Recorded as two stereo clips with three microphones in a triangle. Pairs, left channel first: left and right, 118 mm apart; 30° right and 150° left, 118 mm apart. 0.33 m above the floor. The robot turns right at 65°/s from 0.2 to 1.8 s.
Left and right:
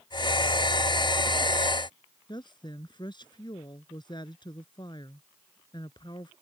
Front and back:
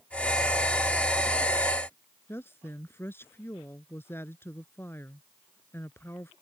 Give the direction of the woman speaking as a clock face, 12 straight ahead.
11 o'clock.